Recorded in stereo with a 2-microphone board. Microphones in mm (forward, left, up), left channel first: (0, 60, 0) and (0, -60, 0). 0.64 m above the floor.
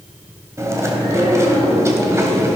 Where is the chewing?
25° right (ahead or behind), 2.5 m.